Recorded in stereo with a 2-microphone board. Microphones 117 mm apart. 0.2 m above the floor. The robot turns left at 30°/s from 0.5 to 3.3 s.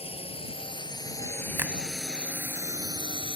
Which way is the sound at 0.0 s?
55° left (ahead or behind).